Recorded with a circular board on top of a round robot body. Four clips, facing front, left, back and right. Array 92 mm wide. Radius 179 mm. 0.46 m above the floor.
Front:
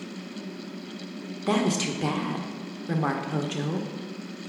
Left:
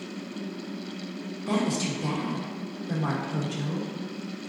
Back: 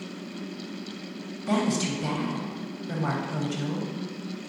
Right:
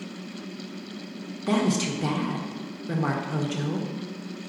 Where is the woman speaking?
20° right, 1.5 m.